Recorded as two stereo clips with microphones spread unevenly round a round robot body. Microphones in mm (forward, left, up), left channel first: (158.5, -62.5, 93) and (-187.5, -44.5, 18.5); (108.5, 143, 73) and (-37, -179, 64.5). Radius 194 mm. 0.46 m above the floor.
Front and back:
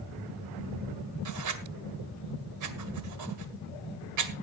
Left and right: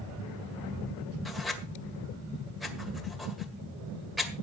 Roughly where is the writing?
Behind left.